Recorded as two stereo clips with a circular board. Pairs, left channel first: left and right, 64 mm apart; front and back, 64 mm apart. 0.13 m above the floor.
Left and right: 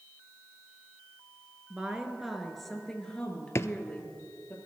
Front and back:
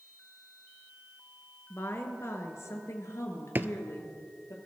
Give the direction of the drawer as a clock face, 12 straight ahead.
8 o'clock.